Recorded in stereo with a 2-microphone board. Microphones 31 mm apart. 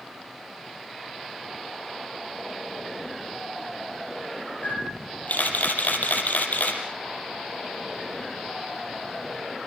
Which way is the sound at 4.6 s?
75° left (ahead or behind).